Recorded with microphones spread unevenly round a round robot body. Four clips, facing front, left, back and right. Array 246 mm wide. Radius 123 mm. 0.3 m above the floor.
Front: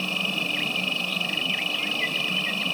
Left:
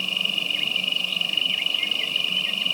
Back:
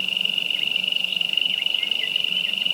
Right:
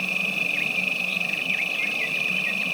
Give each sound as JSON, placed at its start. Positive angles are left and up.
{"t": 0.0, "sound": "an insect", "azimuth_deg": -20}